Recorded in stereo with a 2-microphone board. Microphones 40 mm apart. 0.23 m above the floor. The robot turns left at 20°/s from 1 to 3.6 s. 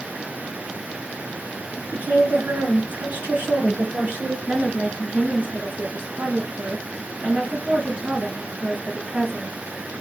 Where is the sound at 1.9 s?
90° right, 2.5 m; by 4.4 s 125° right, 2.5 m.